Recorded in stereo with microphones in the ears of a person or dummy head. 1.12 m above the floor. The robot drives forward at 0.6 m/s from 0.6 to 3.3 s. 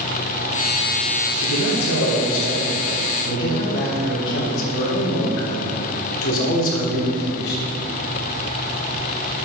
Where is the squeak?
I don't hear a squeak.